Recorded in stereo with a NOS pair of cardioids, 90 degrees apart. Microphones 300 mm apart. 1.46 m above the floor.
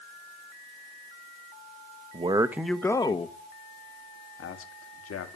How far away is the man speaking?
About 1.1 m.